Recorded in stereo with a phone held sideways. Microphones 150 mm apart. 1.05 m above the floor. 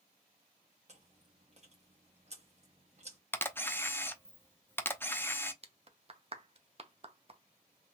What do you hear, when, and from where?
0.9 s chewing: 50° right (ahead or behind), 1.1 m
3.3 s a camera shutter: 15° left (ahead or behind), 0.5 m
5.6 s a clap: 45° right (ahead or behind), 0.6 m